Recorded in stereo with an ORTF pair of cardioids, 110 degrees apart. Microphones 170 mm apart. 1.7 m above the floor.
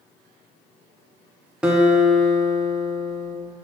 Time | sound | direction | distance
1.6 | a guitar | 5° right | 1.3 m